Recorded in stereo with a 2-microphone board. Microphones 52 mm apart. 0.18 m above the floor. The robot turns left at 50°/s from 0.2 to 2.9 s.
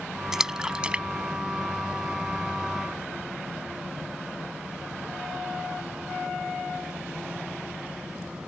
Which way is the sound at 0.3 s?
10° right (ahead or behind).